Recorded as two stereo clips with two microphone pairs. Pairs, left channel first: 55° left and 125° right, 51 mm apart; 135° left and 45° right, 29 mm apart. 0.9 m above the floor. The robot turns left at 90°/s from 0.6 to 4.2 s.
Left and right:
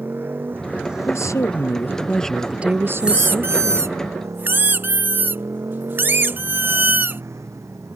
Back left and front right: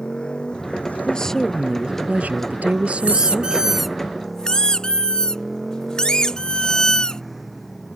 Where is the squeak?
55° right; by 7.2 s 165° right.